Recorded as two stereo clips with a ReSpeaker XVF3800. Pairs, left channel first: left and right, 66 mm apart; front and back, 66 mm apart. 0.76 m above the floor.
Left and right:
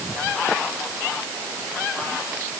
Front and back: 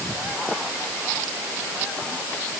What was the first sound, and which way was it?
Only background noise.